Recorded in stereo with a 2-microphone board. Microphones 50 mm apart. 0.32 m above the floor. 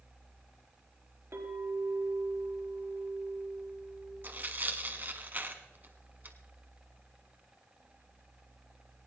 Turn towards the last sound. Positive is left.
turn(degrees=-40)  # may be behind; listen again after turning